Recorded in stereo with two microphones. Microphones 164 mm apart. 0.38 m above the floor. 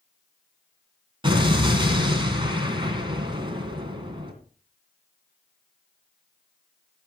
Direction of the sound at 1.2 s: 30° right (ahead or behind).